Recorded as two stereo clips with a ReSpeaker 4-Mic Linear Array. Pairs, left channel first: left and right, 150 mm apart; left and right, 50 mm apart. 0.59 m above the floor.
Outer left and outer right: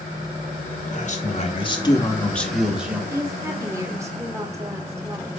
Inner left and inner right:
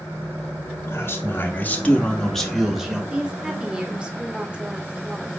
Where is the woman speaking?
20° right (ahead or behind), 0.8 m.